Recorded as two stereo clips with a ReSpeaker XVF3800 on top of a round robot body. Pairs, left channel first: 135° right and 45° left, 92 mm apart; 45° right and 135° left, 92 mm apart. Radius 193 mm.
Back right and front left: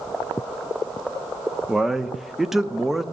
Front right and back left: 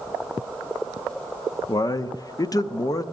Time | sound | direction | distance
1.7 | a man speaking | 40° right | 0.8 m